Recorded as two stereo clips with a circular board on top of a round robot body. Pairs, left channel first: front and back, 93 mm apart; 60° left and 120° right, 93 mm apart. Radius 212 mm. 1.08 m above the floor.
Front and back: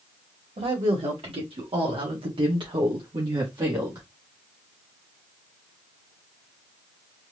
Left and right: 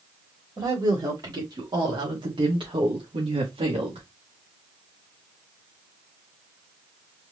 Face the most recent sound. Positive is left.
turn(degrees=-130)